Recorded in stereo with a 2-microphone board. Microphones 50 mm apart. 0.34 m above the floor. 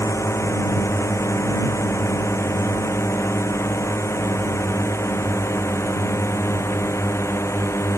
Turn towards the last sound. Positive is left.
turn(degrees=65)  # may be behind; listen again after turning